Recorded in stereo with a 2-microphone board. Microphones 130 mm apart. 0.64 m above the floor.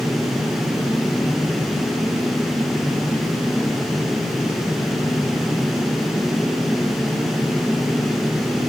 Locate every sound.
Only background noise.